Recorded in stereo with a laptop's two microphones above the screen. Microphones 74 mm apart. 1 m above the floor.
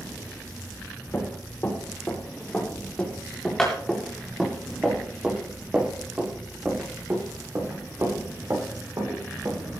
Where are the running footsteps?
30° left (ahead or behind), 9 m; by 9.6 s 50° right (ahead or behind), 9.5 m.